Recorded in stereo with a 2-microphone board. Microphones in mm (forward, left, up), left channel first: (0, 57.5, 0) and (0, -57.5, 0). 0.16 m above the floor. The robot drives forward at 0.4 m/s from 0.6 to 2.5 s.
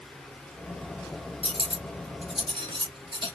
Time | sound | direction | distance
1.4 | cutlery clinking | 60° right (ahead or behind) | 1.2 m